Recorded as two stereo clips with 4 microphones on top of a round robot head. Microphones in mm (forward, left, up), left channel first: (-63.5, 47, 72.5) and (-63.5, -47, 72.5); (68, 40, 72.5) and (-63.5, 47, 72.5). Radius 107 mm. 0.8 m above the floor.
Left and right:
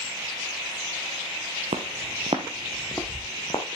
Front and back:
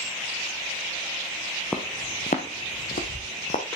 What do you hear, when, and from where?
1.7 s footsteps: 90° right, 1.2 m; by 3.6 s 25° left, 1.9 m